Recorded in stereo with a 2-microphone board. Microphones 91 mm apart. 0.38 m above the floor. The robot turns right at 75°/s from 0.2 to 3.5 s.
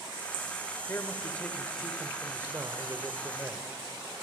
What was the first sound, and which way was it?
A man speaking, 115° left.